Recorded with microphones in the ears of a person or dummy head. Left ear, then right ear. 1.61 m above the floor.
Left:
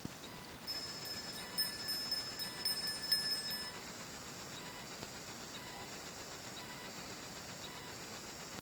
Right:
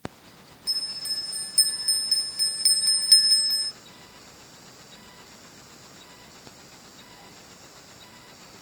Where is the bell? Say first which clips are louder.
Right 15 dB; 35° right (ahead or behind), 0.8 m.